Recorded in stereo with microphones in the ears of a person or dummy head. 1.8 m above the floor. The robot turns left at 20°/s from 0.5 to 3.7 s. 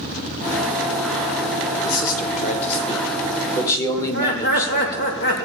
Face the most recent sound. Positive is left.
turn(degrees=55)  # may be behind; listen again after turning